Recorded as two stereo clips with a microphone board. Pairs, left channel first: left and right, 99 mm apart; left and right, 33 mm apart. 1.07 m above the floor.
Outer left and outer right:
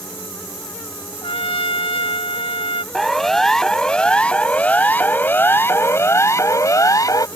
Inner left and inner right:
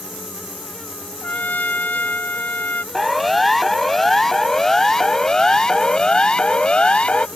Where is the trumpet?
75° left (ahead or behind).